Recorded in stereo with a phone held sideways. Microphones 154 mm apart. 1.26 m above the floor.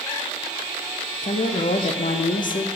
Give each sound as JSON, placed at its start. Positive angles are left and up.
{"t": 1.2, "sound": "a woman speaking", "side_deg": 65, "distance_m": 0.6}